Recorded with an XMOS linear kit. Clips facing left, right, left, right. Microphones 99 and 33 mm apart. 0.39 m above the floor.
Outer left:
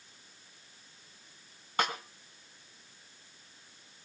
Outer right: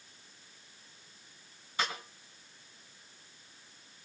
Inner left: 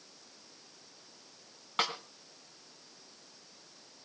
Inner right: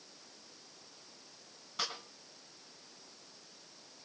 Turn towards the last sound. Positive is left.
turn(degrees=55)  # may be behind; listen again after turning